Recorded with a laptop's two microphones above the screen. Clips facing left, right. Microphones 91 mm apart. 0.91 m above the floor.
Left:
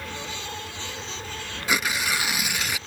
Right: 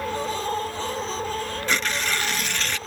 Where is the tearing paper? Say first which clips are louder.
Left 2 dB; 10° left (ahead or behind).